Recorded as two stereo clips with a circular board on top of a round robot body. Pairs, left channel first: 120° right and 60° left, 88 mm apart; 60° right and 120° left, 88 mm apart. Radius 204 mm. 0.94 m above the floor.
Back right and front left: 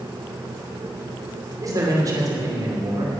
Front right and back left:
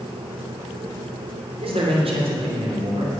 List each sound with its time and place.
1.6 s a man speaking: 115° left, 3 m